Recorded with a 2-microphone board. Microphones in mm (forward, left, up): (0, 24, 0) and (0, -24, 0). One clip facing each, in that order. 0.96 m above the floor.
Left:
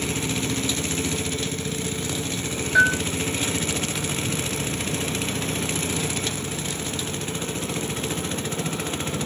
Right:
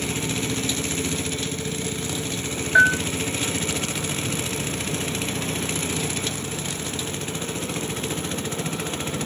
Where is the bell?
20° right (ahead or behind), 0.7 m.